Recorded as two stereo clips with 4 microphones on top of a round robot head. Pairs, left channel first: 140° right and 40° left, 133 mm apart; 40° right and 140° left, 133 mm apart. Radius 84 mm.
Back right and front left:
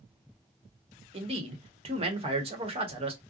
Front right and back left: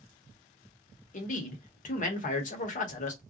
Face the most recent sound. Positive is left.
turn(degrees=-10)